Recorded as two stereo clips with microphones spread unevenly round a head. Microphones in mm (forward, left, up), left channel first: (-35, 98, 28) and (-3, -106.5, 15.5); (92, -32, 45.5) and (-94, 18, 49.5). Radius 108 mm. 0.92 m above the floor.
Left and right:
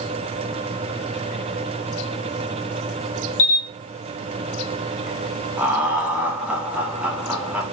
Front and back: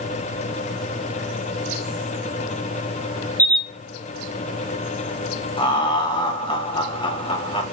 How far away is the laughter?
About 0.8 m.